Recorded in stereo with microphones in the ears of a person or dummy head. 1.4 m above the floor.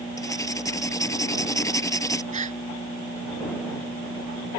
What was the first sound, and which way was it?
Writing, 10° left (ahead or behind).